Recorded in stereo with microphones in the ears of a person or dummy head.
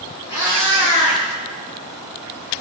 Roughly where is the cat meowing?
Left.